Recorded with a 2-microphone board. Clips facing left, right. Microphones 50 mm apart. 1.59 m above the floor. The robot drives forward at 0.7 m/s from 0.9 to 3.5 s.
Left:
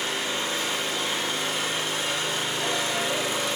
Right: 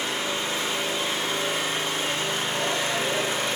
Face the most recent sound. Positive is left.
turn(degrees=-45)  # may be behind; listen again after turning